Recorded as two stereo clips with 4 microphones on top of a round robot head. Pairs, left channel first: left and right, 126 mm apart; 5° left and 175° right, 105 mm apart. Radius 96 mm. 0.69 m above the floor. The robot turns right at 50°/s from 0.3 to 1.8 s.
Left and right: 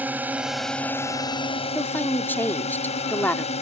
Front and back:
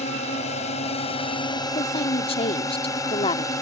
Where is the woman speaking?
15° left.